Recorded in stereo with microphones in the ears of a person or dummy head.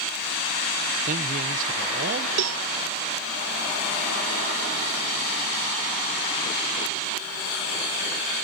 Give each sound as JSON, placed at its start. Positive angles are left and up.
{"t": 1.1, "sound": "a man speaking", "side_deg": -45}
{"t": 2.4, "sound": "a cowbell", "side_deg": -75}